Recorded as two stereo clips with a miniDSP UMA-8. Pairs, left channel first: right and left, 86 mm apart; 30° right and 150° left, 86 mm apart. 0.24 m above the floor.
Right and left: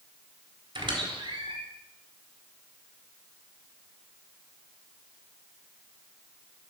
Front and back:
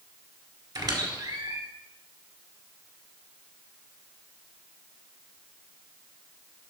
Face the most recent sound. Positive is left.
turn(degrees=110)